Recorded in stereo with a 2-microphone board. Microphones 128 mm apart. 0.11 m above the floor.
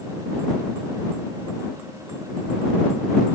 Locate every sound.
Only background noise.